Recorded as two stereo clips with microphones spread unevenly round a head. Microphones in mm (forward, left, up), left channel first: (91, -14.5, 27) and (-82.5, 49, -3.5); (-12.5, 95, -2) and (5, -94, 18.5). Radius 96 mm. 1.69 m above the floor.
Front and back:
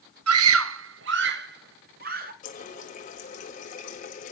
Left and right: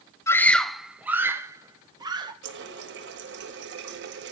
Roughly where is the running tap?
Ahead right.